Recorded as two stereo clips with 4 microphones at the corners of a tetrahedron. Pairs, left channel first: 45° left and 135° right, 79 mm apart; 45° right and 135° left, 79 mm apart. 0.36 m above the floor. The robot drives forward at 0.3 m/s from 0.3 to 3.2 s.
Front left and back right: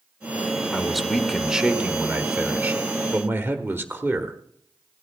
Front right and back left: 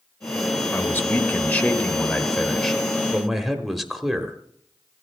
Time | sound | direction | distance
0.7 | a man speaking | 40° right | 1.1 m